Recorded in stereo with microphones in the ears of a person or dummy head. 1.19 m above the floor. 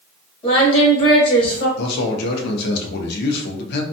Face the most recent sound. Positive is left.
turn(degrees=60)  # may be behind; listen again after turning